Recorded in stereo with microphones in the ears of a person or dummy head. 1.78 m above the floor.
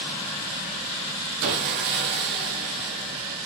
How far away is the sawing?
About 0.9 m.